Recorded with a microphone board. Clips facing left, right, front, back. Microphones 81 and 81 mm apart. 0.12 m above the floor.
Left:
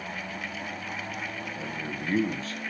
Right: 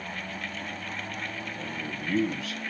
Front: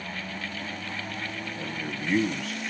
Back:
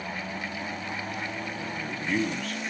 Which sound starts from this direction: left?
A man speaking, at 1.6 s.